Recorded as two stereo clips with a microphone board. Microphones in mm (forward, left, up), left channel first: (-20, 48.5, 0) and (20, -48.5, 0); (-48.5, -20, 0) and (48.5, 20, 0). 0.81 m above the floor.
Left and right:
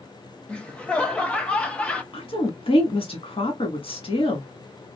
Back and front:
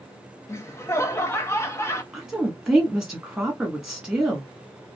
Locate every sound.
0.5 s laughter: straight behind, 0.6 m
2.1 s a woman speaking: 105° left, 1.2 m